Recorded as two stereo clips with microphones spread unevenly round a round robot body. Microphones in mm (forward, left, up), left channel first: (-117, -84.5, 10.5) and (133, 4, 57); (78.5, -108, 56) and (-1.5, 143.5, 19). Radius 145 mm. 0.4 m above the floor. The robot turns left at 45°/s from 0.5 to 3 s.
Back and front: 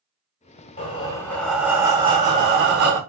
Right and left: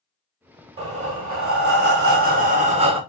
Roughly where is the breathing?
Behind left.